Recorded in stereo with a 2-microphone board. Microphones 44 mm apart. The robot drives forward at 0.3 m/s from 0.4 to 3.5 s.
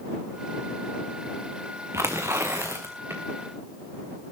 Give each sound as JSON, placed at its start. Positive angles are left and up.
{"t": 1.9, "sound": "tearing paper", "side_deg": -80, "distance_m": 3.0}